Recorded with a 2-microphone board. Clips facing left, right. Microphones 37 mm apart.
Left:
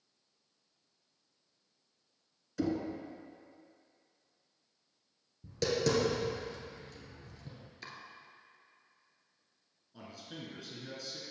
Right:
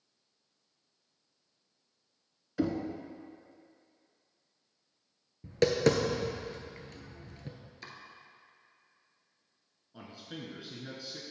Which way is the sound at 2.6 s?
20° right (ahead or behind).